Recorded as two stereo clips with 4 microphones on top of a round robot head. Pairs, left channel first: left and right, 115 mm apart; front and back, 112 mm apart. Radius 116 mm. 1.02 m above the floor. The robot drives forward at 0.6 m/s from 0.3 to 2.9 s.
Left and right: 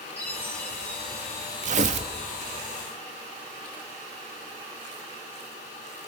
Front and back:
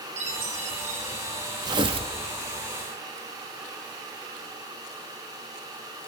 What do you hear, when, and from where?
0.2 s a chime: 170° left, 3 m
1.6 s tearing paper: 115° right, 0.8 m; by 2.1 s 135° right, 1.0 m